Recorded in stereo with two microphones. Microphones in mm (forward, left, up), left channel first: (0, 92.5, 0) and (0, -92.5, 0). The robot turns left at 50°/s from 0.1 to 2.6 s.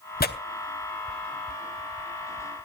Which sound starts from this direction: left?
Tearing paper, at 0.2 s.